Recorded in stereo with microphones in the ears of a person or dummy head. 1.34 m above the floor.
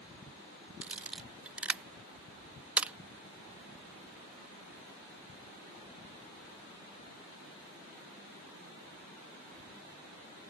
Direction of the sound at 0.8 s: 10° right (ahead or behind).